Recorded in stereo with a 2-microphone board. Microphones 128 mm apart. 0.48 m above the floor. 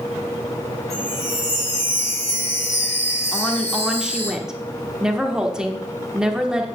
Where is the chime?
55° left (ahead or behind), 4.5 m.